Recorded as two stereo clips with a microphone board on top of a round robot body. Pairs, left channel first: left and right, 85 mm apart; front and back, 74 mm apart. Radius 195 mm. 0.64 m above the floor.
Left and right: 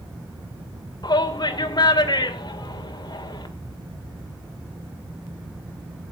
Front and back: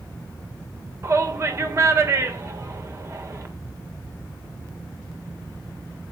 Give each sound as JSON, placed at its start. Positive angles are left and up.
{"t": 1.0, "sound": "a shout", "azimuth_deg": 125, "distance_m": 3.0}